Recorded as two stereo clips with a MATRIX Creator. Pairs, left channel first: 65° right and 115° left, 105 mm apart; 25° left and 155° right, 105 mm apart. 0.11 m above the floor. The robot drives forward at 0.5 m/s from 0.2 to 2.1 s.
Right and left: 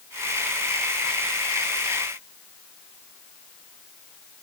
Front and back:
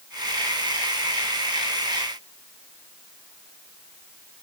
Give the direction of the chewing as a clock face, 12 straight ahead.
No chewing in this recording.